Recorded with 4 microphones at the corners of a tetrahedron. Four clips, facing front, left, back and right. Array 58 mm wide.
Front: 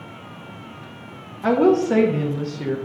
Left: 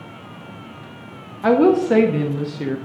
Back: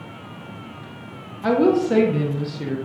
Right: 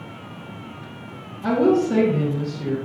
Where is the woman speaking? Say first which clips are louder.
Left 4 dB, front 1 dB; 75° left, 1.1 m.